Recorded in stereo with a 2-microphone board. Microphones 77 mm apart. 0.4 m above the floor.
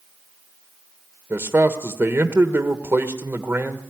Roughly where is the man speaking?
Right.